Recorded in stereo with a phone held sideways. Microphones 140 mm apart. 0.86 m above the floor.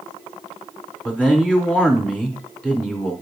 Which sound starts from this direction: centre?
A man speaking, at 1.1 s.